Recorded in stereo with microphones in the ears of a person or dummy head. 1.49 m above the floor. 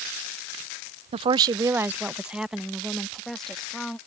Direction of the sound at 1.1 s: 35° right (ahead or behind).